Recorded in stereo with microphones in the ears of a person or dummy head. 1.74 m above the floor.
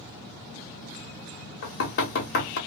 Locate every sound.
1.6 s knocking: 45° left (ahead or behind), 0.8 m